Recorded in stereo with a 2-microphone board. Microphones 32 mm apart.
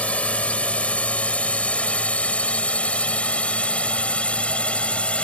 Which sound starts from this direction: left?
A drone, at 0.0 s.